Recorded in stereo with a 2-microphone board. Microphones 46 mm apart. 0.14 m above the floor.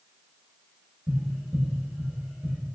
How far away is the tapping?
About 1.9 m.